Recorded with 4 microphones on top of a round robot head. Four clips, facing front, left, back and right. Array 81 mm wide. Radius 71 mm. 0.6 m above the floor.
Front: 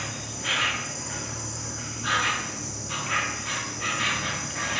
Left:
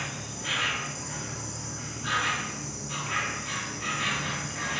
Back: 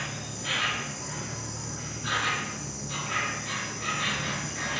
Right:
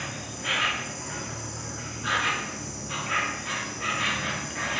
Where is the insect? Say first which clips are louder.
Right 2 dB, front 2 dB; 35° right, 1.4 m.